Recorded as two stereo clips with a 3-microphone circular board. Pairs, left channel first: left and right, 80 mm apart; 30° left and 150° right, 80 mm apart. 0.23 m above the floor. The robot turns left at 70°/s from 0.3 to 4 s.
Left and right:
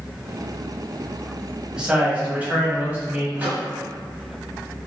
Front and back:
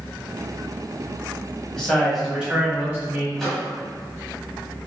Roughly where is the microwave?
Ahead right.